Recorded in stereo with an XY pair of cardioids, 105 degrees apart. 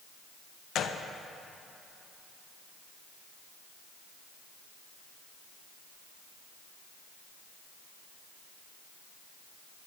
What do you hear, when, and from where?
0.8 s a gunshot: 60° left, 0.7 m